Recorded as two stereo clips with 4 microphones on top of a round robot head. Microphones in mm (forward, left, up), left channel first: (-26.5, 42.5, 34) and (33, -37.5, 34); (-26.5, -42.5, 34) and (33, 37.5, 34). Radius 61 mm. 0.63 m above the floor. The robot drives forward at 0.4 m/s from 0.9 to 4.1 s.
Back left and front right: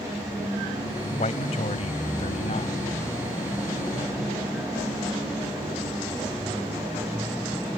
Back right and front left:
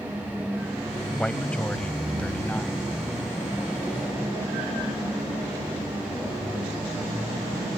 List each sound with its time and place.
1.2 s a man speaking: 150° left; by 2.9 s 155° left